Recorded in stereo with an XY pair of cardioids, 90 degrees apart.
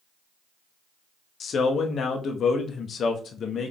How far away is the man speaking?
About 1.0 m.